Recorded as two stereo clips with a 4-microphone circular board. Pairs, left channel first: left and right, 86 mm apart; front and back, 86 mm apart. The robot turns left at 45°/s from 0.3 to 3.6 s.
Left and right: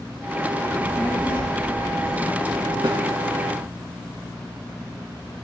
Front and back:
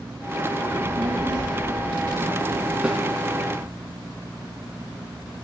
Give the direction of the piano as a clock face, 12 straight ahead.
No piano in this recording.